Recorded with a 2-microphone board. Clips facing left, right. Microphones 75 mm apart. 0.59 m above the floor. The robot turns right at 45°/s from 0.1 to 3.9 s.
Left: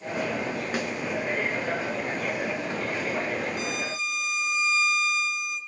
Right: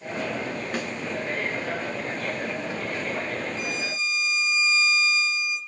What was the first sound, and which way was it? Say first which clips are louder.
A snare drum: left 1 dB; 5° left (ahead or behind).